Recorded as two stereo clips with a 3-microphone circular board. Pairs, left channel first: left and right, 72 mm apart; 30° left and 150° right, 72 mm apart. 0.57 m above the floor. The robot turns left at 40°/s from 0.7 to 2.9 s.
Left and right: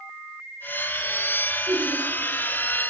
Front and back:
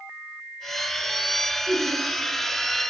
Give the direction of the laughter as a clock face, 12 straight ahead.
3 o'clock.